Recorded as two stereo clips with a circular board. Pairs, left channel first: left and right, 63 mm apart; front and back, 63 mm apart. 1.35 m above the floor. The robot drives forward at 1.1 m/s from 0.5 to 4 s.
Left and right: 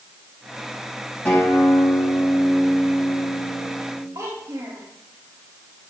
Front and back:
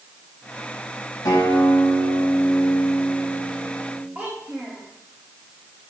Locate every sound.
1.2 s a guitar: 15° left, 5.5 m; by 4.0 s 35° left, 3 m
4.2 s a child speaking: 110° right, 2.5 m